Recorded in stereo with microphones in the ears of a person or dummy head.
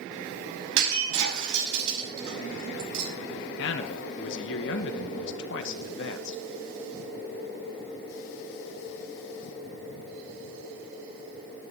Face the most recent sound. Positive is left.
turn(degrees=70)  # may be behind; listen again after turning